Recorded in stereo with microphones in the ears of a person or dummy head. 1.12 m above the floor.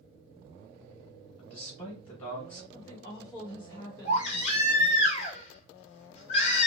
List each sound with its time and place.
1.4 s a man speaking: 30° left (ahead or behind), 1.0 m
2.7 s a woman speaking: 25° left (ahead or behind), 1.5 m
4.0 s a baby crying: 40° left (ahead or behind), 1.4 m